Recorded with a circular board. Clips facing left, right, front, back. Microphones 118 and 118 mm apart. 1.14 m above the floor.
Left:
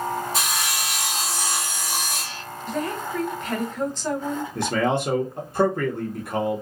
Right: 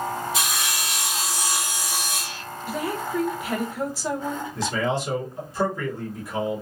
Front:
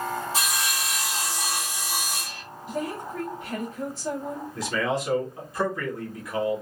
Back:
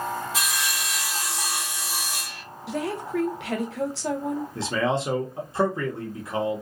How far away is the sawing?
About 1.6 m.